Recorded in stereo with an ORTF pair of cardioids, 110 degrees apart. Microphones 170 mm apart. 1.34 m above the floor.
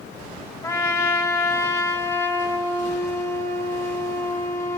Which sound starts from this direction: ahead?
A trumpet, at 0.6 s.